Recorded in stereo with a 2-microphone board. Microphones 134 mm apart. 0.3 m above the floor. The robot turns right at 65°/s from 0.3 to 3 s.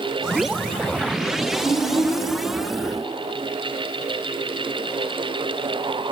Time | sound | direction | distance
1.6 | a child speaking | 150° right | 1.9 m